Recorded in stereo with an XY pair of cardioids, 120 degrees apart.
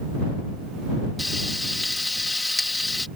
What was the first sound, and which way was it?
Frying, 15° left.